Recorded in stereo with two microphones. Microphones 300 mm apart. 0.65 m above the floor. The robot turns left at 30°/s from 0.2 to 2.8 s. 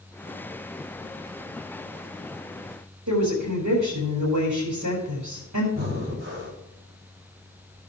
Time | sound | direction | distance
3.1 | a woman speaking | 80° right | 4.5 m
5.7 | breathing | 40° right (ahead or behind) | 3 m